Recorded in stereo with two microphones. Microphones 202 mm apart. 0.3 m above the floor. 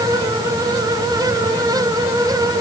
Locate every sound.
Only background noise.